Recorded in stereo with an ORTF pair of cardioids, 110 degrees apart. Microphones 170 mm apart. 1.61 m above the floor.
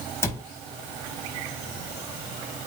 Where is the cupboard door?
15° left, 2 m.